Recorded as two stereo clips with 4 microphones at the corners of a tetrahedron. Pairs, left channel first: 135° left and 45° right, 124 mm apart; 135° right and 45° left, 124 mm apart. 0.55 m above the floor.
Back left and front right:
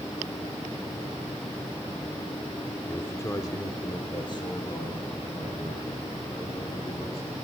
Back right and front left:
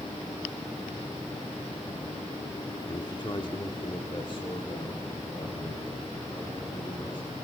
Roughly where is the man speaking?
Behind.